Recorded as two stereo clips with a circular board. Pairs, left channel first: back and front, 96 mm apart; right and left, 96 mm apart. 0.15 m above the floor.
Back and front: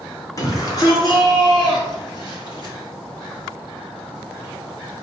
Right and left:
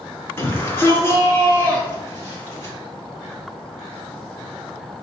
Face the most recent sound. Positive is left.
turn(degrees=-155)